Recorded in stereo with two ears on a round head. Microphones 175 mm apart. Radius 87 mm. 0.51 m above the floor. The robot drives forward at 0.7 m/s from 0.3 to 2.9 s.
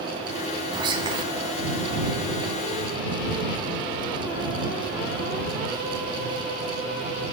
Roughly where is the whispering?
Right.